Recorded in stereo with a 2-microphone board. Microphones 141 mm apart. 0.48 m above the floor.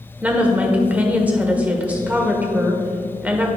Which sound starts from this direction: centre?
A woman speaking, at 0.2 s.